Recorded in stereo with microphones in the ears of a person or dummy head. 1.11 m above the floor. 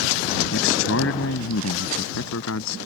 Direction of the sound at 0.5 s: 65° left (ahead or behind).